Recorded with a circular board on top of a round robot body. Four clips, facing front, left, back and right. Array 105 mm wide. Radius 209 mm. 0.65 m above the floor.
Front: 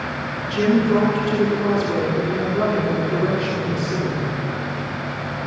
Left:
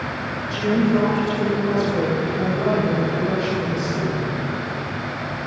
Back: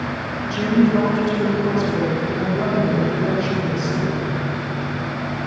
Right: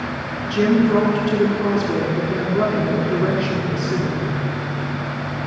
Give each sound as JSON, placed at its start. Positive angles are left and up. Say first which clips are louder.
{"t": 0.4, "sound": "a woman speaking", "louder": "right 4 dB, back 1 dB", "azimuth_deg": -65, "distance_m": 10.0}